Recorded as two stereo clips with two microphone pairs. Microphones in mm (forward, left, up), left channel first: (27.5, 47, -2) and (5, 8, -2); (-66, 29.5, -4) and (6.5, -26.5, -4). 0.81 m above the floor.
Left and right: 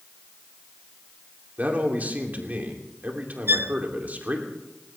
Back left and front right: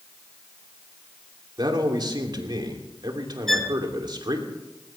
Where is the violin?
135° right, 0.8 m.